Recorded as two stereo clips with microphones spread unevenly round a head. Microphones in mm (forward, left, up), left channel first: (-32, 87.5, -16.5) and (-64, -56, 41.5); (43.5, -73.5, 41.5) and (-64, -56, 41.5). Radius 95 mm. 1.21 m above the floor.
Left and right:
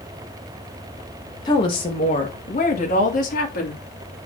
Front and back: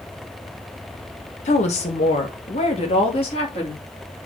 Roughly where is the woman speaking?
Ahead.